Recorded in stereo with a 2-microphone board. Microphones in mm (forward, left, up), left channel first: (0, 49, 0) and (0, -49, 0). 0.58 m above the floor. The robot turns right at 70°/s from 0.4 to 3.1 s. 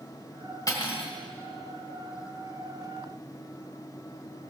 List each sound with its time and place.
0.7 s cutlery clinking: 40° left, 1.8 m; by 1.1 s 70° left, 1.8 m